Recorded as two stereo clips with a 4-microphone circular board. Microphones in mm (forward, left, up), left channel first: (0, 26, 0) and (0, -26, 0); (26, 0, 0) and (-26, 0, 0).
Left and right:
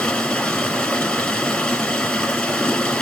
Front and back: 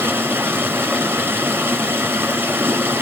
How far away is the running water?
About 1.6 m.